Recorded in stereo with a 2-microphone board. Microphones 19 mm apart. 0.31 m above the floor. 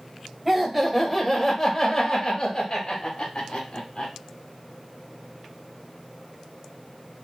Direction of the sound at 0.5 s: 15° right (ahead or behind).